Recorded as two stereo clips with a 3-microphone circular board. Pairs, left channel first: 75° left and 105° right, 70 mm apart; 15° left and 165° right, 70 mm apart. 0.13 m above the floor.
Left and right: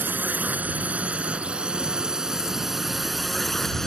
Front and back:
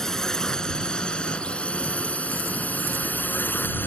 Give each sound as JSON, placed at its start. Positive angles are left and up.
{"t": 0.0, "sound": "a drone", "azimuth_deg": -65}